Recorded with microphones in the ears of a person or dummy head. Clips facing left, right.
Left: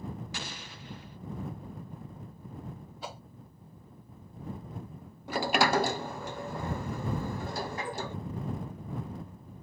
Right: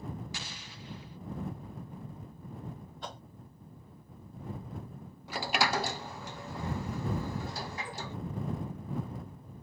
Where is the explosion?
50° left (ahead or behind).